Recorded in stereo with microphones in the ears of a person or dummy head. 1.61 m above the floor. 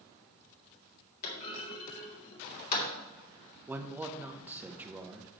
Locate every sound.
1.2 s a clunk: 55° left (ahead or behind), 3 m
3.7 s a man speaking: 5° right (ahead or behind), 0.9 m